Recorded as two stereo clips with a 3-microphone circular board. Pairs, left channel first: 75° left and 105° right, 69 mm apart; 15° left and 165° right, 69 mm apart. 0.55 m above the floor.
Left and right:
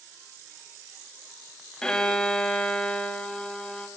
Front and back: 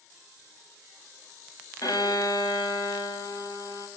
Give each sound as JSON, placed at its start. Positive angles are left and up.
{"t": 1.8, "sound": "a violin", "azimuth_deg": -5, "distance_m": 3.5}